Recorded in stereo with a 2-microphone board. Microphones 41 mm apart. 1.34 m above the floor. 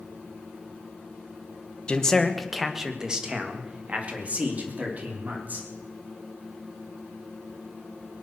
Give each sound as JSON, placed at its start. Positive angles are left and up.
{"t": 1.9, "sound": "a man speaking", "side_deg": 25, "distance_m": 1.2}